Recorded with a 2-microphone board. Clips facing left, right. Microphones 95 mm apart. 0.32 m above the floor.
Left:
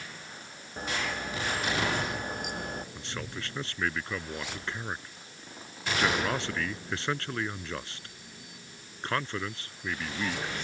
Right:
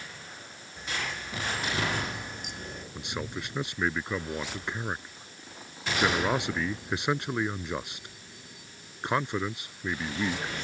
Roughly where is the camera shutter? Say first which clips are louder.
Left 3 dB; left.